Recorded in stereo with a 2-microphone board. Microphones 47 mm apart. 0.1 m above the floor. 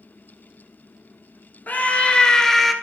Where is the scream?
35° left (ahead or behind), 1.3 m; by 2.7 s centre (ahead or behind), 1.4 m.